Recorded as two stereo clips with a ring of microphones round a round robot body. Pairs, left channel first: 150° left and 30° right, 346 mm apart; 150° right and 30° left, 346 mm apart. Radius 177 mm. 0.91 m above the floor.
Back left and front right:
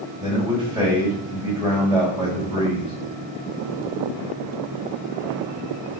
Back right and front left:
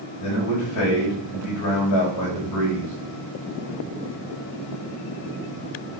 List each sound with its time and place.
0.2 s a man speaking: 105° right, 5.5 m